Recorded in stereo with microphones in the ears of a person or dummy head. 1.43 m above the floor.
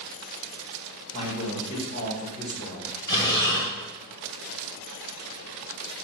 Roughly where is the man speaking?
Left.